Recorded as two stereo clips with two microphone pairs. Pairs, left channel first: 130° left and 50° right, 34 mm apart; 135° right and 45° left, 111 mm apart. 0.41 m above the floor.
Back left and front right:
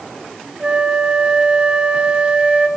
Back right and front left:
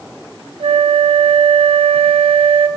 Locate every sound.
0.6 s a flute: 15° left, 1.2 m